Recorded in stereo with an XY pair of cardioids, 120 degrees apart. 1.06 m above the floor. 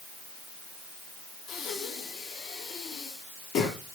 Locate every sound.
1.5 s breathing: 65° left, 3 m